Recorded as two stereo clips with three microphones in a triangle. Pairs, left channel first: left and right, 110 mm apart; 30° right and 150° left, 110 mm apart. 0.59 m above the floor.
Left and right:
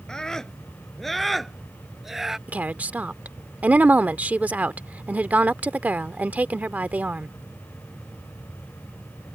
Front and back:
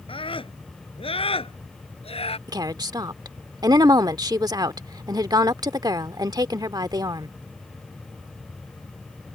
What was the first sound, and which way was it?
A scream, 5° left.